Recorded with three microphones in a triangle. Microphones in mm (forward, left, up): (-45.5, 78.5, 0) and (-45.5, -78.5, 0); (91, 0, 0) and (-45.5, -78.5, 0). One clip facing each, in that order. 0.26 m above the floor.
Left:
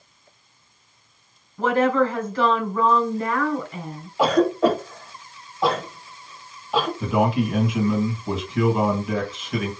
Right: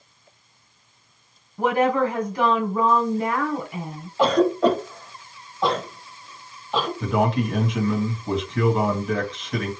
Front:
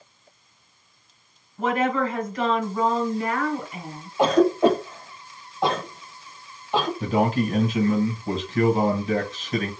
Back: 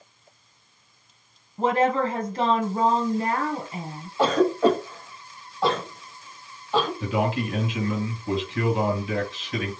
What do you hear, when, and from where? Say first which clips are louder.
1.6 s a woman speaking: left 1 dB, back 1 dB; 150° right, 1.5 m
4.2 s a cough: even, front 2 dB; 20° left, 1.1 m
7.0 s a man speaking: even, front 3 dB; 5° left, 1.5 m